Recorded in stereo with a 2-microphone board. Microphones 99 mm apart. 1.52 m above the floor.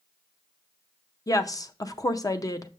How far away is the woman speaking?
About 0.6 m.